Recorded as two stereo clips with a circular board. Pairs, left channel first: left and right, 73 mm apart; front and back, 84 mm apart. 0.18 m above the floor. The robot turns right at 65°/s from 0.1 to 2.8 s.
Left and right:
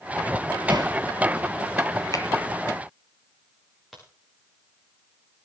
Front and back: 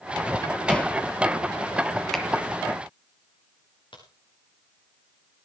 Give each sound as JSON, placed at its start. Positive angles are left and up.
{"t": 0.7, "sound": "hammering", "azimuth_deg": -80, "distance_m": 2.5}
{"t": 2.1, "sound": "a finger snap", "azimuth_deg": 85, "distance_m": 2.0}
{"t": 3.9, "sound": "a crack", "azimuth_deg": 0, "distance_m": 5.5}